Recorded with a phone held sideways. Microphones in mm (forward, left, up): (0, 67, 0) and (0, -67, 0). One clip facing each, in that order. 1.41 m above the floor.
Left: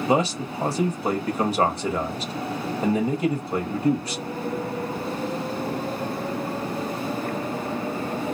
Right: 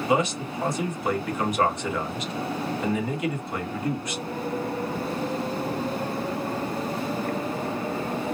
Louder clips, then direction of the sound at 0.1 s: Left 2 dB; 35° left (ahead or behind).